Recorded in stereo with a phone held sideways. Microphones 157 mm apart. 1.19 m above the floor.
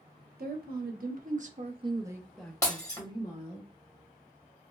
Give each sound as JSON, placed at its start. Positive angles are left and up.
{"t": 0.4, "sound": "a woman speaking", "side_deg": -75, "distance_m": 1.0}
{"t": 2.6, "sound": "breaking glass", "side_deg": 20, "distance_m": 1.1}